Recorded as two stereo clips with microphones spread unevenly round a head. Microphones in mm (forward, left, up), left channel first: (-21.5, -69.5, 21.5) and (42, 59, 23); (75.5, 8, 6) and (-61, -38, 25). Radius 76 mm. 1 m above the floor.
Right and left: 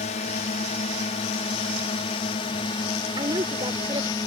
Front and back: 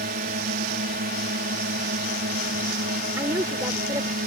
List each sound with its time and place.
0.0 s a drone: 150° right; by 4.3 s 175° right
3.2 s a woman speaking: 130° left